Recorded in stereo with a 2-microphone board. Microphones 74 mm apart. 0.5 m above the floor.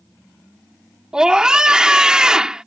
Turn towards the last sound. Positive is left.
turn(degrees=-10)  # may be behind; listen again after turning